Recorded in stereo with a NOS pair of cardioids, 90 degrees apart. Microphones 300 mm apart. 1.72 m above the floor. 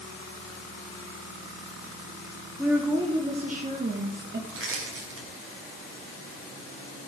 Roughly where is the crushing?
Ahead right.